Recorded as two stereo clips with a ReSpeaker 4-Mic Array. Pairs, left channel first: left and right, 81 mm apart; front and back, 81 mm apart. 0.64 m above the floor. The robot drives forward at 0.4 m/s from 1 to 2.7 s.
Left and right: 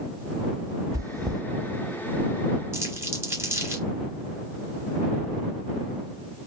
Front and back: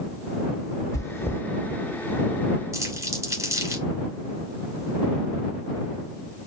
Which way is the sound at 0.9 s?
50° right.